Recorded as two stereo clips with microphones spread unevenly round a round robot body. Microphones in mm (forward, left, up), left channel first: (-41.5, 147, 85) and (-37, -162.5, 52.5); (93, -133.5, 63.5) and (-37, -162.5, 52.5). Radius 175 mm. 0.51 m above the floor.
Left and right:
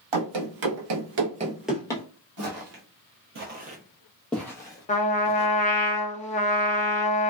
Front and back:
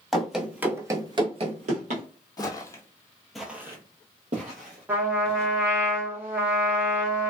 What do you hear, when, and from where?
0.1 s running footsteps: 75° right, 1.1 m; by 2.0 s 160° left, 0.8 m
2.4 s footsteps: 40° right, 0.9 m; by 5.6 s 155° left, 1.2 m
4.9 s a trumpet: 150° left, 0.7 m